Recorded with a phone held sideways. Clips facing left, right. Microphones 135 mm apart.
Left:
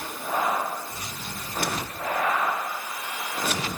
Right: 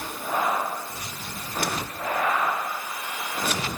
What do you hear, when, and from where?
Only background noise.